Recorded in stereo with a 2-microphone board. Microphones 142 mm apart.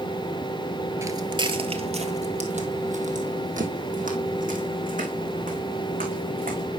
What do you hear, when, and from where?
1.0 s footsteps: 20° right (ahead or behind), 0.9 m; by 6.7 s 75° right (ahead or behind), 4.5 m